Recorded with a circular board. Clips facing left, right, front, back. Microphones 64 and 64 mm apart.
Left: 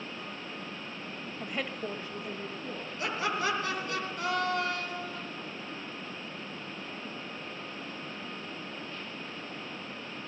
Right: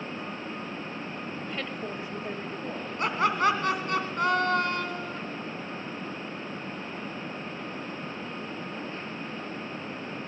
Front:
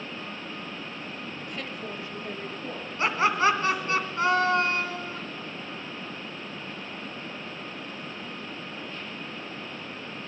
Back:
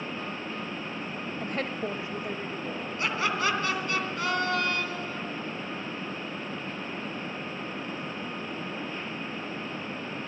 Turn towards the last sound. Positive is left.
turn(degrees=-55)